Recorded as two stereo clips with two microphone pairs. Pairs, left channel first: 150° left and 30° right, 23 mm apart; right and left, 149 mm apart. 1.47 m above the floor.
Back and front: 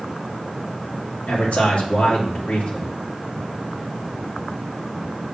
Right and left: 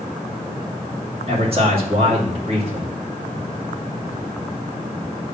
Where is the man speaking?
135° left, 2.5 m.